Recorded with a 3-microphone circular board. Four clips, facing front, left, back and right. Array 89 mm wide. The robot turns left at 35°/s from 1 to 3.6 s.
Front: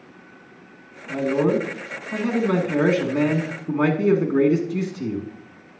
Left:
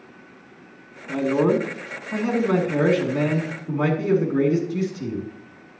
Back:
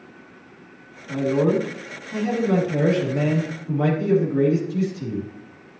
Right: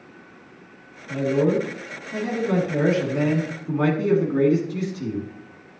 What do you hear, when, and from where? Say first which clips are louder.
1.1 s a man speaking: left 1 dB, even; 85° left, 2.5 m; by 5.2 s 5° right, 2.5 m